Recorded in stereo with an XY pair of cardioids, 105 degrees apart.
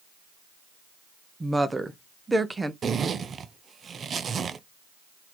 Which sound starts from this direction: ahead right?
A zipper, at 2.8 s.